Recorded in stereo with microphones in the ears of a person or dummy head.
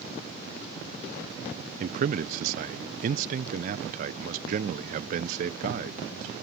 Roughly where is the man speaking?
Right.